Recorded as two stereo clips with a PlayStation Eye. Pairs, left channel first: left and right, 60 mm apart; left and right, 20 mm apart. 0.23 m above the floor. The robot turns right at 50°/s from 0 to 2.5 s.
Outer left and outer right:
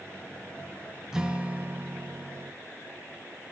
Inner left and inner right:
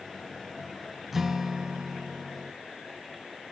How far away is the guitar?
About 0.5 m.